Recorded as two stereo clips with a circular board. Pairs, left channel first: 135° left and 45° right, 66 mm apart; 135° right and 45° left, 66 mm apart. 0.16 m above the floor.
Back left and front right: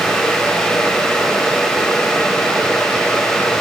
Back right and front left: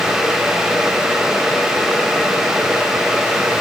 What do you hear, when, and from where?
Only background noise.